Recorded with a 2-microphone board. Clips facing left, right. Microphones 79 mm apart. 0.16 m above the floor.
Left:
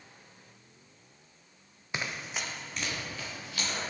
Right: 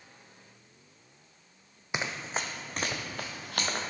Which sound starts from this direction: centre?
Running footsteps, at 1.9 s.